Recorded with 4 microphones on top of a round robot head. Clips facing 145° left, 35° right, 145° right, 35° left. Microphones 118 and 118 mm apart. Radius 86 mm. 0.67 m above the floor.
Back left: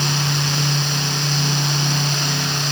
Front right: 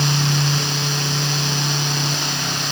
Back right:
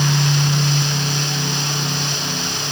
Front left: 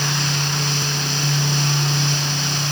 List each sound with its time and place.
Only background noise.